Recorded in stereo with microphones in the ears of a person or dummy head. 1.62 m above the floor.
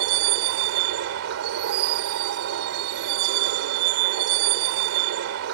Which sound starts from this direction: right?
A vehicle, at 0.0 s.